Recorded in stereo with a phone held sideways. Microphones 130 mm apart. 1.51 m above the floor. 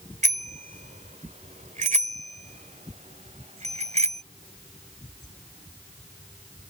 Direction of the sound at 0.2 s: 80° right.